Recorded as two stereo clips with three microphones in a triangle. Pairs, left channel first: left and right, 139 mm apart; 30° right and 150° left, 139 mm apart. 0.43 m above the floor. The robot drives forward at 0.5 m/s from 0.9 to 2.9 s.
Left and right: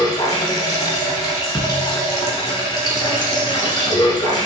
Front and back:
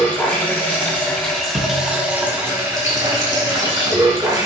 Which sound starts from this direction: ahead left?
Running water, at 0.0 s.